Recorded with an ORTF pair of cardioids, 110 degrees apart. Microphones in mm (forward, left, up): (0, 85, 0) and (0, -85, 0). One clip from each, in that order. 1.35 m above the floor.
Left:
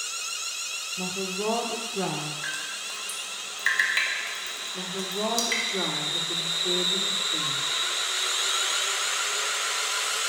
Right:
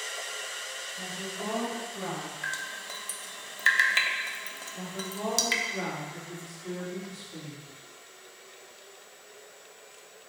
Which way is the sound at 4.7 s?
25° left.